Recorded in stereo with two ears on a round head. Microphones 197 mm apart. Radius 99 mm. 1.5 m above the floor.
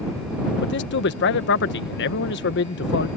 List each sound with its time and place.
0.6 s a man speaking: 55° left (ahead or behind)